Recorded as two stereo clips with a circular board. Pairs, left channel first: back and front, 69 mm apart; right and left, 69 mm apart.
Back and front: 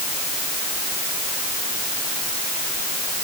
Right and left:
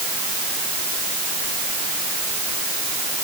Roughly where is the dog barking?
I don't hear a dog barking.